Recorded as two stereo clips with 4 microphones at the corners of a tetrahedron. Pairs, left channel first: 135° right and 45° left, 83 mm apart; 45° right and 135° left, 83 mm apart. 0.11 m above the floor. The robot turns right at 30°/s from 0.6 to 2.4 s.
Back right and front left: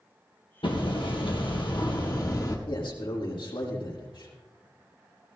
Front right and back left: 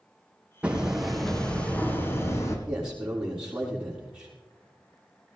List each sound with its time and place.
0.6 s hammering: 150° right, 2.5 m; by 2.6 s 95° right, 2.5 m
2.7 s a man speaking: 145° right, 5.5 m